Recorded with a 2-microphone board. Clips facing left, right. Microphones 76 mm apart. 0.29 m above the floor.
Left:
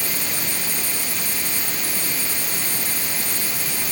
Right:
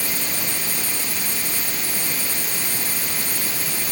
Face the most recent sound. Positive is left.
No sound to turn to.